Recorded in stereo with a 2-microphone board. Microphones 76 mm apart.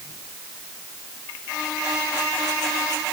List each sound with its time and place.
Only background noise.